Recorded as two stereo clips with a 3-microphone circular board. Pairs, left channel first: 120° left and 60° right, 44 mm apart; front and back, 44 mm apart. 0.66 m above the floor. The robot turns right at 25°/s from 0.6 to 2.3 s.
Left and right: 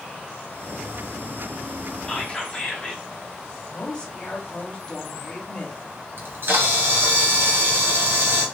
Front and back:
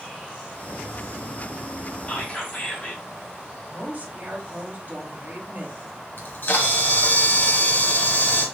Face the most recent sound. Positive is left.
turn(degrees=-35)